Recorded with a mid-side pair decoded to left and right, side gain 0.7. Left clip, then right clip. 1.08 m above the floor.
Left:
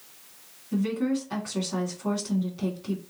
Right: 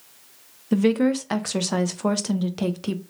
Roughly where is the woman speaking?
Ahead right.